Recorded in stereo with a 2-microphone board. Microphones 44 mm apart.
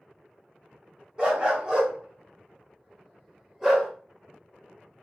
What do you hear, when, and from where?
1.2 s a dog barking: 25° right (ahead or behind), 1.1 m; by 3.9 s 5° right (ahead or behind), 1.2 m